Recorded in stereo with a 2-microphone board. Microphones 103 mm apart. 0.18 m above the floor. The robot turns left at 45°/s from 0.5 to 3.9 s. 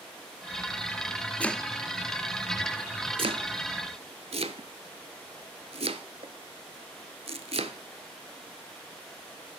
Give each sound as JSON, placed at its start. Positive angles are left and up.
{"t": 1.4, "sound": "chopping", "side_deg": 15, "distance_m": 0.5}